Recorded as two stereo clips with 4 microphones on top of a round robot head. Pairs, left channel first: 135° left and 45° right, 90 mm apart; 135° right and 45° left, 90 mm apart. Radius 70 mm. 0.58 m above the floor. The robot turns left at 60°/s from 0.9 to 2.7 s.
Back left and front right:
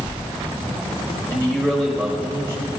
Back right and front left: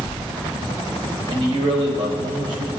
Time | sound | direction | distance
1.3 | a man speaking | 80° left | 3 m